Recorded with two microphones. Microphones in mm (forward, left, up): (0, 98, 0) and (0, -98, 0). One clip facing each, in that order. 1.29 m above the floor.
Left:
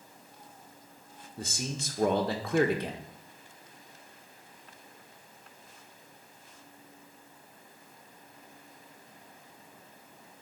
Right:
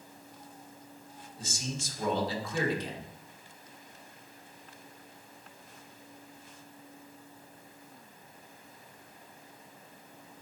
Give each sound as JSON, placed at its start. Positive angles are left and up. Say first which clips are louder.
{"t": 1.4, "sound": "a man speaking", "louder": "left 2 dB", "side_deg": 65, "distance_m": 1.3}